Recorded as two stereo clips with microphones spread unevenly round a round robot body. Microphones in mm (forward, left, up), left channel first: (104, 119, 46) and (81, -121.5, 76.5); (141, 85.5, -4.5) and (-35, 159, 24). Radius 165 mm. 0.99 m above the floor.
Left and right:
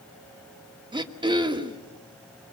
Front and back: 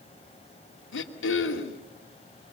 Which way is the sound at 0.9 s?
25° right.